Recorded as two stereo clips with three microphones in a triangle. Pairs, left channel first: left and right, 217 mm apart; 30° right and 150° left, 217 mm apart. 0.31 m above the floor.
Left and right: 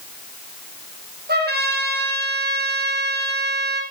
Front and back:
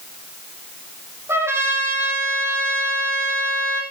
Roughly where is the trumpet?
Behind right.